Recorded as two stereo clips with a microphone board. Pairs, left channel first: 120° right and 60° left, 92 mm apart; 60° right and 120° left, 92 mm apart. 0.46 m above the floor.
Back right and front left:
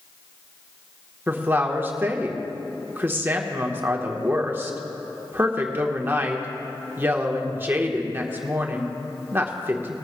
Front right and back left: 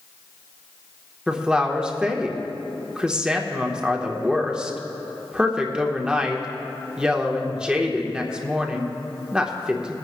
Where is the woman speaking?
55° left, 1.0 m.